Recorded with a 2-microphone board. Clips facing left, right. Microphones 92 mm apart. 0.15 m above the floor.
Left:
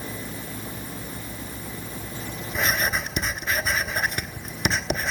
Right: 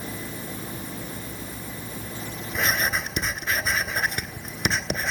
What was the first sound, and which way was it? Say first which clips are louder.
Writing: even; 5° left (ahead or behind).